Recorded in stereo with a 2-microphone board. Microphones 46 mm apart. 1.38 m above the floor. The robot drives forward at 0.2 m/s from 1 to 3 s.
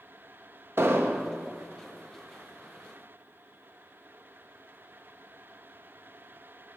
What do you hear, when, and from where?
0.8 s an explosion: 55° right (ahead or behind), 0.6 m; by 1.3 s 60° right (ahead or behind), 0.6 m